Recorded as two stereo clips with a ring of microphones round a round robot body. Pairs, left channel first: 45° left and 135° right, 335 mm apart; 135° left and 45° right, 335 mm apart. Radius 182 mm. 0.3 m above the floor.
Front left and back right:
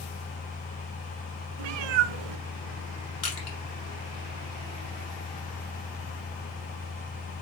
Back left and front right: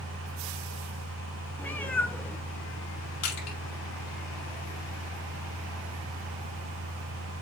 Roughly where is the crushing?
Left.